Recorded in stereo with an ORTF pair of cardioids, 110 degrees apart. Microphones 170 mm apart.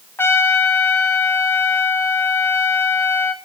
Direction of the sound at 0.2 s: 15° left.